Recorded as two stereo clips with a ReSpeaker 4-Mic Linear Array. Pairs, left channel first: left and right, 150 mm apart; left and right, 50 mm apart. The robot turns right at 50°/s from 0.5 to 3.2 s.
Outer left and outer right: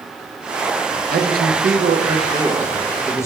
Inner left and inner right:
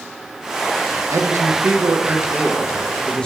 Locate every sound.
1.1 s a man speaking: 85° right, 0.7 m; by 3.2 s 20° left, 0.7 m